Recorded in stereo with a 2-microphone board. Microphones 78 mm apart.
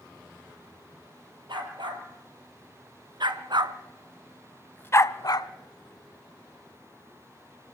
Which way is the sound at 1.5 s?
85° right.